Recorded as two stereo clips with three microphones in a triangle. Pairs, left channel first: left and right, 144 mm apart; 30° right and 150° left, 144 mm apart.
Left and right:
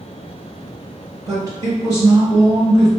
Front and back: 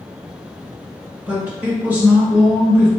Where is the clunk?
I don't hear a clunk.